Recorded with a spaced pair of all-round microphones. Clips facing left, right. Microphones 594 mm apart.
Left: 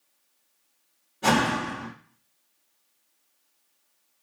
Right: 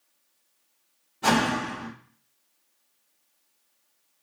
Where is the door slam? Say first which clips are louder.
Even; 5° right (ahead or behind), 2 m.